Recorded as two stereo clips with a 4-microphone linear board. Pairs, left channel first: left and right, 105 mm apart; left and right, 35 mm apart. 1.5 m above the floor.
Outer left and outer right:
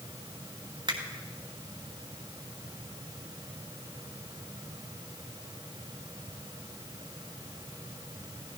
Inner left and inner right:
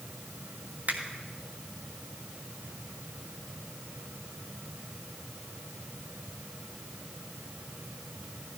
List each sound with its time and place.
0.9 s a finger snap: 50° right (ahead or behind), 2.5 m